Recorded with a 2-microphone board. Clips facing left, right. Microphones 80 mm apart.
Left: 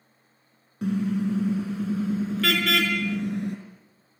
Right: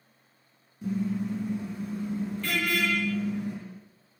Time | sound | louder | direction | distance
0.8 | a car horn | left 4 dB | 70° left (ahead or behind) | 4.5 m